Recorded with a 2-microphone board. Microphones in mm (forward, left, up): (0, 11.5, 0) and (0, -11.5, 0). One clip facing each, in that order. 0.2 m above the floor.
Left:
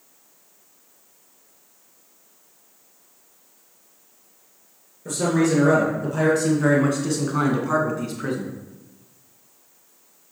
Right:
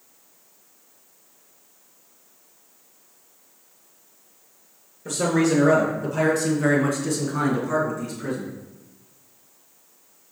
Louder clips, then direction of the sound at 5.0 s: Even; 15° right (ahead or behind).